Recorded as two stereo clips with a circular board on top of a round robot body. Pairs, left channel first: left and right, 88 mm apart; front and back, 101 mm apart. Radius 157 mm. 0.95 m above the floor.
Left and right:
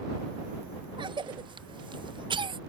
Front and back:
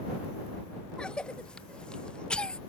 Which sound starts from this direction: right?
A cough, at 1.0 s.